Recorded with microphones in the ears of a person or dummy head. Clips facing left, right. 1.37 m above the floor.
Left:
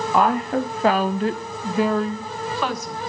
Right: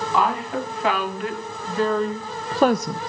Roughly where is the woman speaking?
Left.